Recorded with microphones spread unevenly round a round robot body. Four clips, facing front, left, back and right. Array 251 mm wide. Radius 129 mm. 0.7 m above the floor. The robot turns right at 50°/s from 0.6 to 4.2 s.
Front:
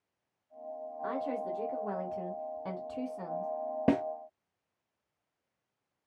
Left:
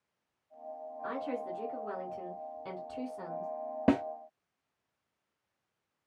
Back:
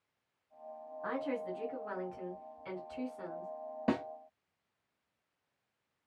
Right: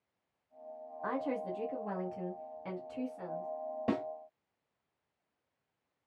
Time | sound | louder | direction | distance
1.0 | a woman speaking | right 1 dB, front 2 dB | 85° right | 1.2 m
3.9 | a snare drum | left 7 dB, front 5 dB | 40° left | 0.6 m